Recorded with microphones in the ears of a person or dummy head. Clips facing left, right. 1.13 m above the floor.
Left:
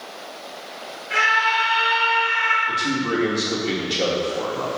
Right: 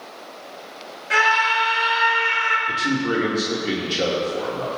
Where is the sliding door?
No sliding door in this recording.